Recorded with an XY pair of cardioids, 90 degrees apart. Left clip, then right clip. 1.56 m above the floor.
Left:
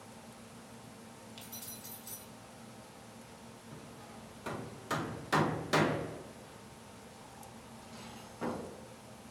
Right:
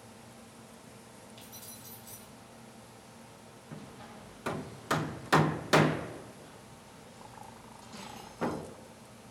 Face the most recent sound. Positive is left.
turn(degrees=-50)